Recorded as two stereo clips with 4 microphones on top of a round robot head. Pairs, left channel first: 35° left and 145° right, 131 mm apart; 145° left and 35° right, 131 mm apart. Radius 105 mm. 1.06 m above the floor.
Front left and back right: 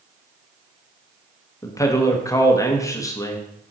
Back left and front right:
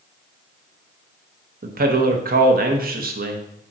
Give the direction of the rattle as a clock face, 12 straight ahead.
I don't hear a rattle.